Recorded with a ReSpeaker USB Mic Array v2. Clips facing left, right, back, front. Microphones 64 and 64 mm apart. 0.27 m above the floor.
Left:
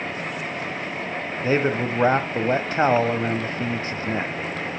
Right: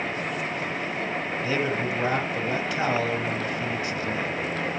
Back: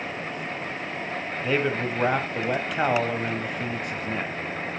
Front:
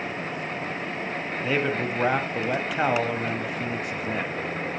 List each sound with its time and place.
1.4 s a man speaking: 90° left, 1.1 m